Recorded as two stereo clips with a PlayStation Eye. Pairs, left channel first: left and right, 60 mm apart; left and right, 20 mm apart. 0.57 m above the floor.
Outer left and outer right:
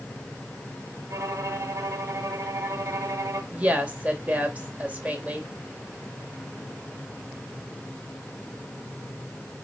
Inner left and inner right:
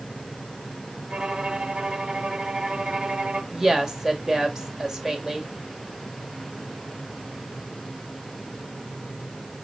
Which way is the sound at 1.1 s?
60° right (ahead or behind).